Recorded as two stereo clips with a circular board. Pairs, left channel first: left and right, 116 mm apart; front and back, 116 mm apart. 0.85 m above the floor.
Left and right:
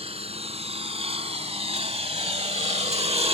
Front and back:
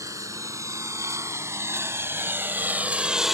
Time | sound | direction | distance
0.0 | a lawn mower | 120° right | ?